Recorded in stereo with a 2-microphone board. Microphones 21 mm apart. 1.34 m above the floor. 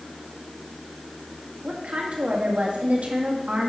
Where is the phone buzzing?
I don't hear a phone buzzing.